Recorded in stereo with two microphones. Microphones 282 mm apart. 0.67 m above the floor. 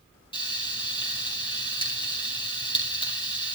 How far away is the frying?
About 4.5 m.